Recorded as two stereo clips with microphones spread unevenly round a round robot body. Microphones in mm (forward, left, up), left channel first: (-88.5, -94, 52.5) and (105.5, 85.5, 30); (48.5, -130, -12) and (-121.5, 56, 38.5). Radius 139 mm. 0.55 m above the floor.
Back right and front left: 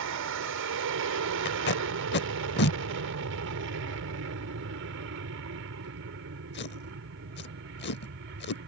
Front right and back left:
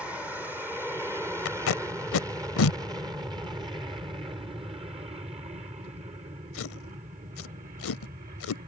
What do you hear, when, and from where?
0.0 s an aircraft: 40° left; by 8.7 s 70° left
1.4 s tape being pulled: 85° right